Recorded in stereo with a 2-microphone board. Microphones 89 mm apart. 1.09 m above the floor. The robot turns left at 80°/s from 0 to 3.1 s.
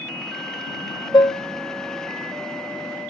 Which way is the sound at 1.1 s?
50° left (ahead or behind).